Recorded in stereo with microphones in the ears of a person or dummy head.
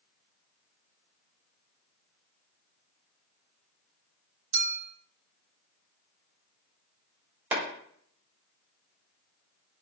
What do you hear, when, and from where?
4.5 s a clink: 45° right (ahead or behind), 1.2 m
7.5 s a clap: 5° right (ahead or behind), 3 m